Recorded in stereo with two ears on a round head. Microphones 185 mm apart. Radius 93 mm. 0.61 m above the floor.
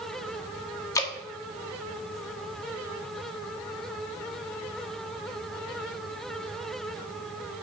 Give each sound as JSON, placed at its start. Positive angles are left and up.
{"t": 0.9, "sound": "dripping", "side_deg": 15, "distance_m": 1.2}